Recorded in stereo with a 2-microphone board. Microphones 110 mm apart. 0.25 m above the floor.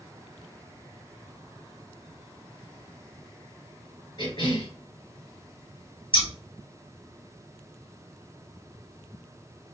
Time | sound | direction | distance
4.2 | a cough | 50° left (ahead or behind) | 2.5 m
6.1 | scissors | 50° left (ahead or behind) | 2.5 m